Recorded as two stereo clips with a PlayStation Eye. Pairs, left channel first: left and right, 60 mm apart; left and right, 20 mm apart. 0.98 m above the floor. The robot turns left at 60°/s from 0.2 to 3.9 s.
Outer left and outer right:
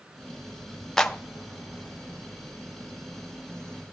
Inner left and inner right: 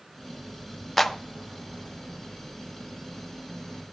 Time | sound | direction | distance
1.0 | a clap | 5° left (ahead or behind) | 0.6 m